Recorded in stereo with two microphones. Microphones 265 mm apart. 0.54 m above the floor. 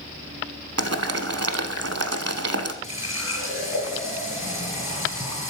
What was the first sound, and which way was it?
Boiling, 65° right (ahead or behind).